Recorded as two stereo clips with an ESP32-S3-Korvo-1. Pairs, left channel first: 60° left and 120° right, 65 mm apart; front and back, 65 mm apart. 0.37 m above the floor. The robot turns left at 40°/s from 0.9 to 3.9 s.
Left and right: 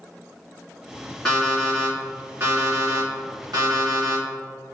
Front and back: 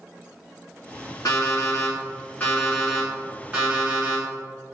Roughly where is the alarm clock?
Ahead.